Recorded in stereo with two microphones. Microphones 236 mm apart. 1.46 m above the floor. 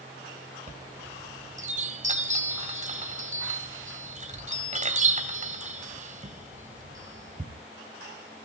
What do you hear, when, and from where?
0.7 s a chime: 30° right (ahead or behind), 2 m